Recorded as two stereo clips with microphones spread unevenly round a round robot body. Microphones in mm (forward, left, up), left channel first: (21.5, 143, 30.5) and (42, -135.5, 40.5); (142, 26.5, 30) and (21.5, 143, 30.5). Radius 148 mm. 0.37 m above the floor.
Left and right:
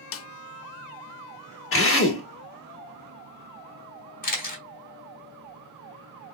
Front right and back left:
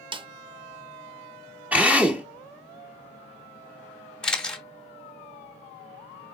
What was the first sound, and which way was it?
A snare drum, 80° left.